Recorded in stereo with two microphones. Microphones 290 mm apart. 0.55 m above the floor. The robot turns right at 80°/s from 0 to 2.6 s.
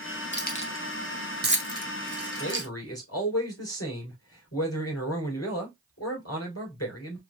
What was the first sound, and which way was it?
Keys jangling, 40° left (ahead or behind).